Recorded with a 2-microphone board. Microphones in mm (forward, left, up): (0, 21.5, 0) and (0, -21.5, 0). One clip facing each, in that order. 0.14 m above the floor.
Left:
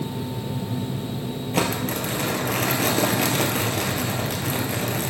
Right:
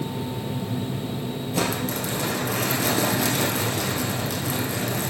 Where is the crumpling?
50° left (ahead or behind), 2.5 m.